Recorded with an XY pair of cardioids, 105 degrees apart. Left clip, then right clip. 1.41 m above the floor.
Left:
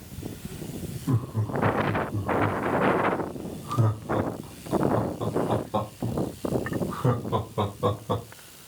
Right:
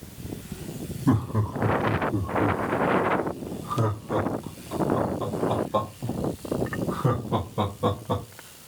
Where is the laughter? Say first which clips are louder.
Right 5 dB; 65° right, 1.9 m; by 8.2 s 10° left, 5.5 m.